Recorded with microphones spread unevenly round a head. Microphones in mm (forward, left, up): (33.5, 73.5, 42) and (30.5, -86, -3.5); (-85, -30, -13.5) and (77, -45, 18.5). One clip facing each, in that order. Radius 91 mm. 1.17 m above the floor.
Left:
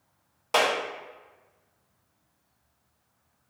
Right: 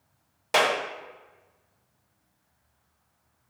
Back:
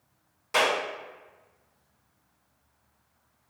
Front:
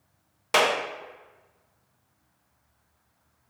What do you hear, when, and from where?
0.5 s a clap: 20° right, 0.6 m